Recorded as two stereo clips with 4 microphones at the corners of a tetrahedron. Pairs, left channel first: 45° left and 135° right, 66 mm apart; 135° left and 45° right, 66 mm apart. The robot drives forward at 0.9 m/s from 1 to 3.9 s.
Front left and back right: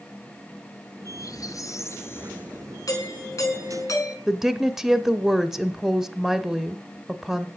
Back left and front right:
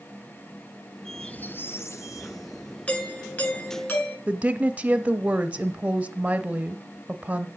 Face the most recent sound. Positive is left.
turn(degrees=-65)